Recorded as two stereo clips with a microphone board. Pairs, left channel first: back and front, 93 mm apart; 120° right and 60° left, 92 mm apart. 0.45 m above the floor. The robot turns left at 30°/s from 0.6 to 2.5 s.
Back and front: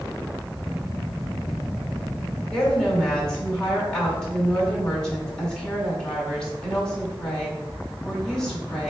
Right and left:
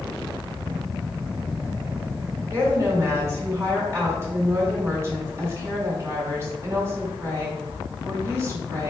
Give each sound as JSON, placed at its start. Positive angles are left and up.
{"t": 2.5, "sound": "a woman speaking", "azimuth_deg": 105, "distance_m": 1.6}